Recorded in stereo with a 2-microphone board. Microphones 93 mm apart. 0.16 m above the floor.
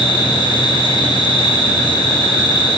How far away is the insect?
About 4.5 m.